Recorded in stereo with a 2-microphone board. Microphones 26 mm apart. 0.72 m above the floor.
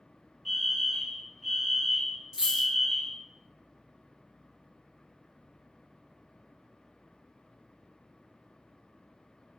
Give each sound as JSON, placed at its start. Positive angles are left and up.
{"t": 0.5, "sound": "a fire alarm", "side_deg": -10, "distance_m": 2.0}
{"t": 2.3, "sound": "a dropped coin", "side_deg": -25, "distance_m": 3.5}